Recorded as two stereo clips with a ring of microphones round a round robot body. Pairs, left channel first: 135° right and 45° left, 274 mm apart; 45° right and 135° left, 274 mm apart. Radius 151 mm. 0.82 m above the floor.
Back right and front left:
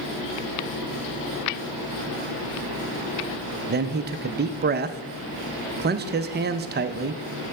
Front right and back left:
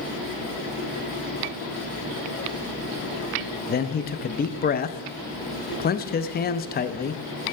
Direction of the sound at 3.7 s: Straight ahead.